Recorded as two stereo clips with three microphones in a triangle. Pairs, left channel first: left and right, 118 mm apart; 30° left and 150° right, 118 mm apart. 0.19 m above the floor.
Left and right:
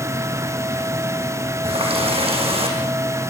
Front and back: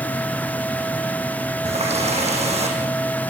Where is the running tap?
125° right, 6.5 m.